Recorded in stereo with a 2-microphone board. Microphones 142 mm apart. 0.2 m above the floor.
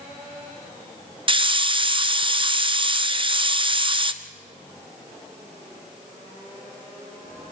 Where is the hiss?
35° right (ahead or behind), 0.7 m.